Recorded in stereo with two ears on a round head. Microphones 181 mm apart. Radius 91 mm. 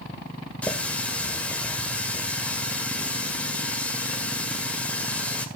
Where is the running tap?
5° left (ahead or behind), 1.8 m.